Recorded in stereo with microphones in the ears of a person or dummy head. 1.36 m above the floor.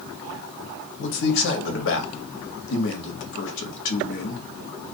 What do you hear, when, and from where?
1.0 s a man speaking: 70° left (ahead or behind), 0.9 m